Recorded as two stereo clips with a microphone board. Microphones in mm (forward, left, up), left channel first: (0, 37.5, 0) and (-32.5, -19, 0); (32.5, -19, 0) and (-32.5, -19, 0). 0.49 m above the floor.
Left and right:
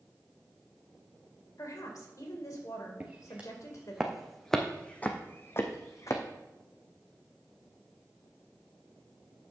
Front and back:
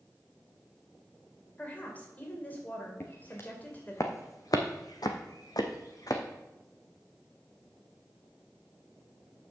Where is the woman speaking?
60° left, 2 m.